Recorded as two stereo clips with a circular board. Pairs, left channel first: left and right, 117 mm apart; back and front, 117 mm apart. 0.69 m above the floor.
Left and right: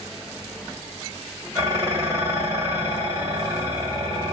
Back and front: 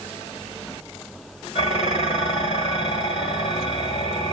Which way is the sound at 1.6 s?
155° right.